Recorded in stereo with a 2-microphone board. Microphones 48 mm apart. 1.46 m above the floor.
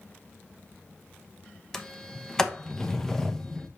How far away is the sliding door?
About 0.9 m.